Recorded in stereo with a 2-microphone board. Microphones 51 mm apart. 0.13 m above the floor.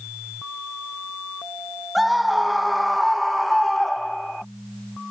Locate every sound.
1.9 s a scream: centre (ahead or behind); by 4.4 s 5° left (ahead or behind)